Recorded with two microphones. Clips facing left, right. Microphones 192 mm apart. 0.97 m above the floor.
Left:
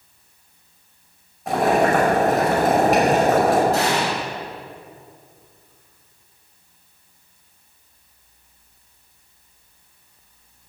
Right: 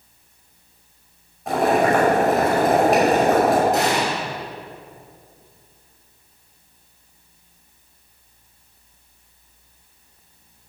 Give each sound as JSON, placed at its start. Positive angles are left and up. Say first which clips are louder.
{"t": 1.5, "sound": "boiling", "louder": "even", "side_deg": 0, "distance_m": 5.5}
{"t": 3.7, "sound": "an explosion", "louder": "even", "side_deg": -20, "distance_m": 6.0}